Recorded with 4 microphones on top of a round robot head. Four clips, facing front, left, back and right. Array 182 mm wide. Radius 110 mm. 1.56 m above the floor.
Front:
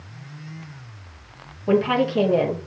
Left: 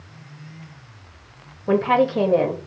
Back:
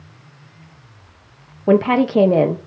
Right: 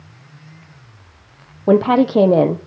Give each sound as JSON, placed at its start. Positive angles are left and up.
{"t": 1.7, "sound": "a woman speaking", "azimuth_deg": -120, "distance_m": 0.9}